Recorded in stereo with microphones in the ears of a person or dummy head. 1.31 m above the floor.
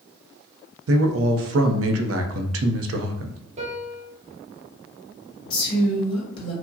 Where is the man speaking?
75° right (ahead or behind), 0.6 m.